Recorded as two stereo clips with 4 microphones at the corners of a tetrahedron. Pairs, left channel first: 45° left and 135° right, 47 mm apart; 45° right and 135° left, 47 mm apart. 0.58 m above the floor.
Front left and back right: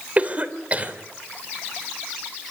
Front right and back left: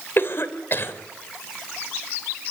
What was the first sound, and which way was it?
A cough, 75° right.